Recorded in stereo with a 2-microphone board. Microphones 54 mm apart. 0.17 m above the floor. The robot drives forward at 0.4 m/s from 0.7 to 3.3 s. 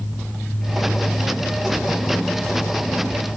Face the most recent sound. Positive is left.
No sound to turn to.